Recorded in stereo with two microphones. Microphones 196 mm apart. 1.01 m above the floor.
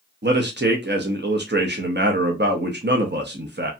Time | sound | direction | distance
0.2 | a man speaking | 60° right (ahead or behind) | 0.7 m